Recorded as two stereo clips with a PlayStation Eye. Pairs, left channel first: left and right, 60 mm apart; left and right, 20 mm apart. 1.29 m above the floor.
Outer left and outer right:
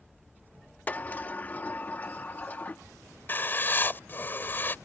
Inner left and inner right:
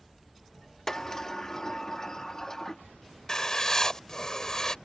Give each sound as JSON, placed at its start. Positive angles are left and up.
{"t": 0.9, "sound": "a sliding door", "side_deg": 30}
{"t": 3.3, "sound": "writing", "side_deg": 35}